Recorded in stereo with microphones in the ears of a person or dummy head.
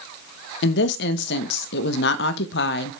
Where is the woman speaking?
65° left (ahead or behind), 1.1 m.